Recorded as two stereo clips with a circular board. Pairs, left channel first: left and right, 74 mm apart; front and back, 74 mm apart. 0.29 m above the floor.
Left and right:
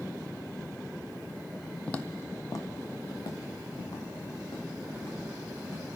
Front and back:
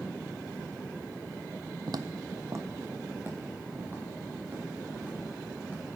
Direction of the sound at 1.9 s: 165° left.